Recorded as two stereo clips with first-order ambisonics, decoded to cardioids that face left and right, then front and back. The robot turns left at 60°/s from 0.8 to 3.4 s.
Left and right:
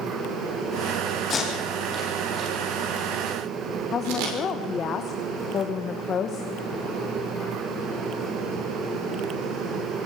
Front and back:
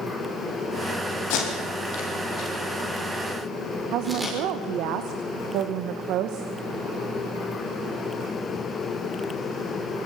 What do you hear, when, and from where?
1.3 s tape being pulled: 25° left, 6.5 m; by 4.3 s 100° right, 6.5 m
3.9 s a woman speaking: 150° left, 1.2 m